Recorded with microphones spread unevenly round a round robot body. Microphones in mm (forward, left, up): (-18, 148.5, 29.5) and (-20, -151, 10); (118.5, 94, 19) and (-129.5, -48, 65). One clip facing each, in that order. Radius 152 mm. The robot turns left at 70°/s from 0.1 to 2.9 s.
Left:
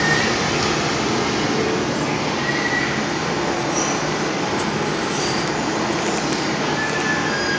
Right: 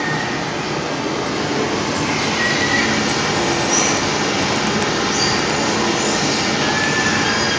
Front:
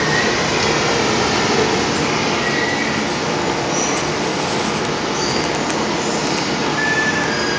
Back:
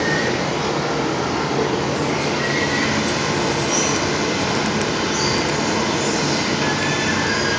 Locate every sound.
0.0 s running water: 105° left, 0.9 m; by 7.6 s 90° right, 0.9 m